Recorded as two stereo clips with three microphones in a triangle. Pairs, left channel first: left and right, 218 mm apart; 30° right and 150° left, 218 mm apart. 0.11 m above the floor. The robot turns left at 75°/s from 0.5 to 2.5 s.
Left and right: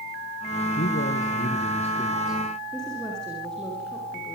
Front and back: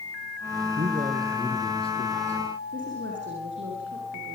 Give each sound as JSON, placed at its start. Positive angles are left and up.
{"t": 0.8, "sound": "a man speaking", "azimuth_deg": 115, "distance_m": 3.0}
{"t": 2.7, "sound": "a woman speaking", "azimuth_deg": 175, "distance_m": 8.5}